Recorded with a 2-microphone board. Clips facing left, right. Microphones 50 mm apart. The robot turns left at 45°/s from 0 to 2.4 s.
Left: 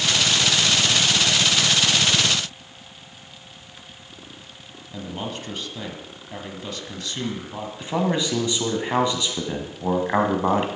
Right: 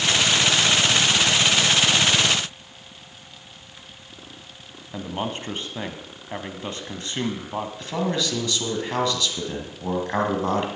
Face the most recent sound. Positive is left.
turn(degrees=20)  # may be behind; listen again after turning